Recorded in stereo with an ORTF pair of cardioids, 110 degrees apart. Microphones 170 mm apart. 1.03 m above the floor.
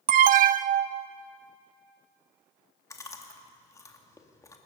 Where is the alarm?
60° right, 0.6 m.